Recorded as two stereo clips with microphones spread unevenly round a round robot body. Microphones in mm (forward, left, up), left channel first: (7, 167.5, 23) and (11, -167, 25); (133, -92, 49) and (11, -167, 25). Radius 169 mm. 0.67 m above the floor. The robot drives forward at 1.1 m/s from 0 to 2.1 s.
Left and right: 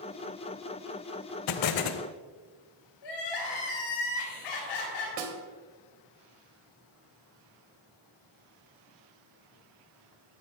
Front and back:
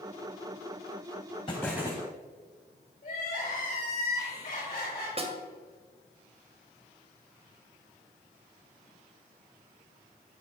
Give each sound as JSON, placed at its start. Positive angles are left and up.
{"t": 1.5, "sound": "an explosion", "azimuth_deg": 85, "distance_m": 0.6}
{"t": 3.0, "sound": "crying", "azimuth_deg": 90, "distance_m": 4.0}
{"t": 5.2, "sound": "a snare drum", "azimuth_deg": -100, "distance_m": 1.9}